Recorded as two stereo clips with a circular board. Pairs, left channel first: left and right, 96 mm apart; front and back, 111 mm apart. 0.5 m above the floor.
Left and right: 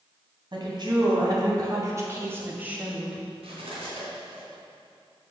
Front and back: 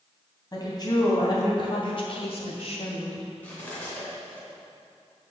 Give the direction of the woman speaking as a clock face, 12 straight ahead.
2 o'clock.